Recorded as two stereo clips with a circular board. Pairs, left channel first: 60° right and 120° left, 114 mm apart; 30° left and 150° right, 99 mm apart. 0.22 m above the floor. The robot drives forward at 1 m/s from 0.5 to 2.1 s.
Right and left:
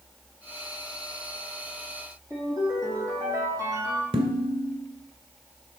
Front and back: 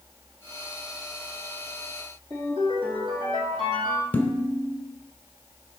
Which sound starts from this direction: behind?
A ringtone, at 2.3 s.